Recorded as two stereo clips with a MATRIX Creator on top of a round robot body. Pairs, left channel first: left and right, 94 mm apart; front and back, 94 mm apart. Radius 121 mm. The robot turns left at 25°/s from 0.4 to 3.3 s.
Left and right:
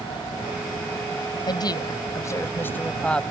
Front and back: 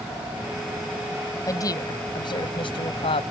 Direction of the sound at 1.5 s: 55° left.